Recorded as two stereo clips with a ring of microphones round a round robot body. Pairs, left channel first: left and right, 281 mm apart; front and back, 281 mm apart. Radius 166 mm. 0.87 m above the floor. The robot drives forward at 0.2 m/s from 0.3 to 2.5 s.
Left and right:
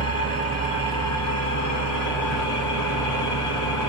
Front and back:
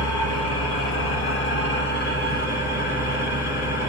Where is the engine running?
45° left, 1.3 m; by 3.9 s 65° left, 1.0 m.